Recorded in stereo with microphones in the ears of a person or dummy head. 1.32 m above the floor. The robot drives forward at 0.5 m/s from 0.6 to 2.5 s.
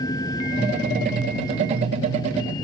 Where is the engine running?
20° left (ahead or behind); by 2.6 s 25° left (ahead or behind).